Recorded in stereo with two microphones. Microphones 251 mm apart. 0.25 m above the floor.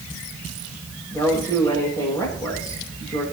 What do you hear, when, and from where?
1.1 s a woman speaking: 10° left (ahead or behind), 9 m